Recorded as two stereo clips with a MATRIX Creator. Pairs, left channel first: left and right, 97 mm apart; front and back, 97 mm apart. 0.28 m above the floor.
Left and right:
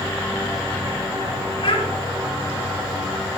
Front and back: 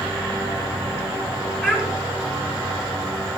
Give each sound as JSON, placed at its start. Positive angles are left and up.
{"t": 1.6, "sound": "a child speaking", "azimuth_deg": 95, "distance_m": 2.5}